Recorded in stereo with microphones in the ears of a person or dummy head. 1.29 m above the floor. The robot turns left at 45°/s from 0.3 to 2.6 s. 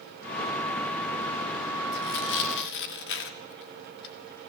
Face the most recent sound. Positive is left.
turn(degrees=70)  # may be behind; listen again after turning